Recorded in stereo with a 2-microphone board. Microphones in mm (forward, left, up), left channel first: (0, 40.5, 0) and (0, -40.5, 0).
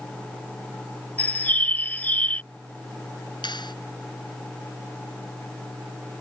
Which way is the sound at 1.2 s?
20° left (ahead or behind).